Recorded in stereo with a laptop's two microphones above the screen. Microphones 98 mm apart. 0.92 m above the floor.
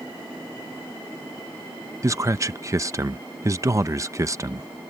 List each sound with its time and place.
2.0 s a man speaking: 30° right (ahead or behind)